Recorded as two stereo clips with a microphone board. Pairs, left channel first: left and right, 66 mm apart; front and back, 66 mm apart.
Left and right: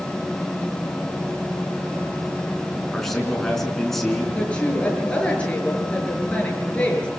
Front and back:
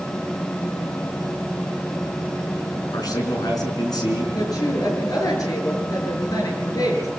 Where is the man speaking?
5° left, 4.5 m.